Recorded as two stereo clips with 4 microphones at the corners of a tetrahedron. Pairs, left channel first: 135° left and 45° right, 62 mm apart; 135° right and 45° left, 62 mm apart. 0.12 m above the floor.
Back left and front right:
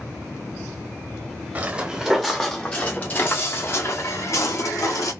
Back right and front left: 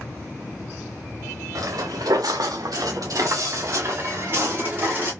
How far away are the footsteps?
About 0.9 m.